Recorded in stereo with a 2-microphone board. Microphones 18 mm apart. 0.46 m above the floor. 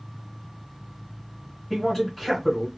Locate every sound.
1.7 s a man speaking: 5° left (ahead or behind), 1.9 m